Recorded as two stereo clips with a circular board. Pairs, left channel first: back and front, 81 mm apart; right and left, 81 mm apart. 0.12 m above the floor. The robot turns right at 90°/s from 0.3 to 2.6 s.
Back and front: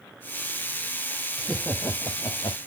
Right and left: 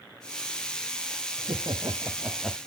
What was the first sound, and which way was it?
Laughter, 85° left.